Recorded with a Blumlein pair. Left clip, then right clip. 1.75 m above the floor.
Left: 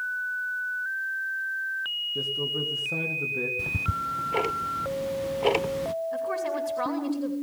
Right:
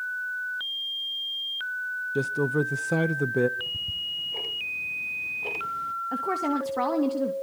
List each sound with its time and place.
2.1 s a man speaking: 60° right, 1.7 m
3.6 s ticking: 55° left, 0.7 m
6.1 s a woman speaking: 55° right, 3 m